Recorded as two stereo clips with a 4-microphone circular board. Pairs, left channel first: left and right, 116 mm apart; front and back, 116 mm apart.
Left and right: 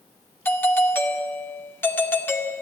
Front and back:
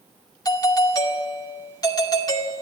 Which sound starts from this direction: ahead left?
A doorbell, at 0.5 s.